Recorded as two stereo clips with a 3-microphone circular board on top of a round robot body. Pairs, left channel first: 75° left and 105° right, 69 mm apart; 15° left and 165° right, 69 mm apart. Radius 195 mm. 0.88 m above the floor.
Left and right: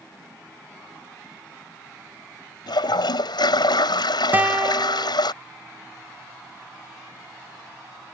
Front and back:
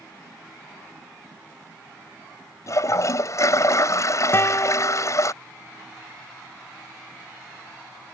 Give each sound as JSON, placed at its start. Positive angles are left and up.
{"t": 2.7, "sound": "a toilet flushing", "azimuth_deg": 60}
{"t": 4.3, "sound": "a guitar", "azimuth_deg": -40}